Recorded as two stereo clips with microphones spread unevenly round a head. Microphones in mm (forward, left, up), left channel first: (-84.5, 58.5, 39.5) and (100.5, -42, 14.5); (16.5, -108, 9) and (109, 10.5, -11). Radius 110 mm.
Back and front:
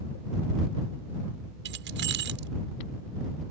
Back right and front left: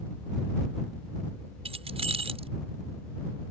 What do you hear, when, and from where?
1.6 s keys jangling: 5° left